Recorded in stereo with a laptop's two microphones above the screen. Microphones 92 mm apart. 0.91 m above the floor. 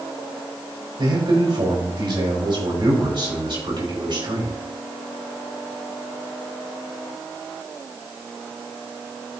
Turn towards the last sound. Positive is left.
turn(degrees=-60)  # may be behind; listen again after turning